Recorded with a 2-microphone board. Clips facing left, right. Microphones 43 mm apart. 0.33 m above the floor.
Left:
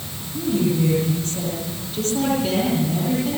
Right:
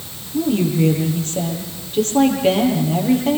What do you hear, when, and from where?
0.3 s a woman speaking: 35° right (ahead or behind), 10 m